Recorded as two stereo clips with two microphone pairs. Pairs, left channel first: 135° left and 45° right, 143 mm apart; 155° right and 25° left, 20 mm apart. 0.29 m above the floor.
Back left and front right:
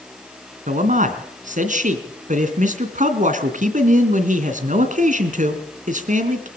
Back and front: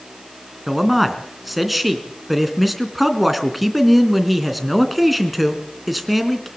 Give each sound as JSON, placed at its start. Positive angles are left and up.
{"t": 0.7, "sound": "a man speaking", "azimuth_deg": -60, "distance_m": 2.5}